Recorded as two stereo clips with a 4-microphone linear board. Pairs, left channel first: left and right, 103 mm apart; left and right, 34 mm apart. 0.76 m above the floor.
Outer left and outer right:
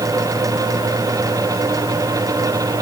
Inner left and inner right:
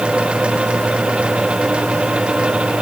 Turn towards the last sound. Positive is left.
No sound to turn to.